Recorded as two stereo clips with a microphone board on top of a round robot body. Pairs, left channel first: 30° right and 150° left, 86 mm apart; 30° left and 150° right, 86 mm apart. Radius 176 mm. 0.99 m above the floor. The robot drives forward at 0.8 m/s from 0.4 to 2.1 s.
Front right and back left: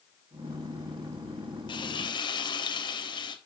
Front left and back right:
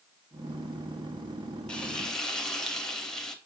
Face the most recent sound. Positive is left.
turn(degrees=-55)